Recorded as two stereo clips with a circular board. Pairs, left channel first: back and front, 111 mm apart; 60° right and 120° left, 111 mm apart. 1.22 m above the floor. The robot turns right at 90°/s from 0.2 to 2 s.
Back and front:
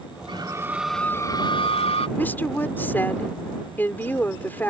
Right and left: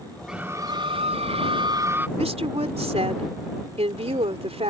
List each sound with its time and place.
0.3 s a scream: 35° left; by 2.1 s 170° right
2.2 s a woman speaking: 110° left